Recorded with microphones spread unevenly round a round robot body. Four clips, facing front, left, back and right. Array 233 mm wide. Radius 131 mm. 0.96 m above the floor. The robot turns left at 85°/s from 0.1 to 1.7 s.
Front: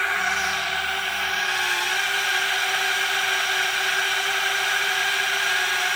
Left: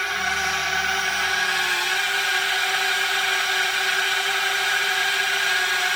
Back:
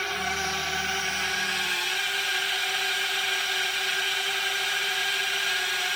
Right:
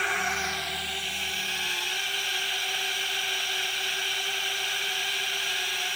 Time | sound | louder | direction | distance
0.0 | a drone | left 4 dB, front 5 dB | 155° right | ?